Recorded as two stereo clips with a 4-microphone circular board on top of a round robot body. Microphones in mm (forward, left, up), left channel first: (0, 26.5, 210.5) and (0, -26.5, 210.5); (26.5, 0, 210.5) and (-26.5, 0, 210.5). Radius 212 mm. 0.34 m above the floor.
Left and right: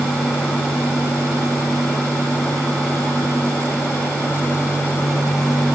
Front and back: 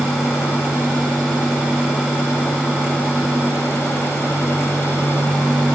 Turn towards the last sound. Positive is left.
No sound to turn to.